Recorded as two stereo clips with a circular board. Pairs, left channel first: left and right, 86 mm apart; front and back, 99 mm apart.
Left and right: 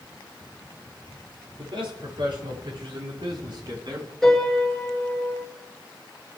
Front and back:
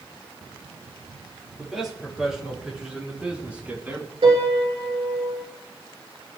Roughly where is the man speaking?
Right.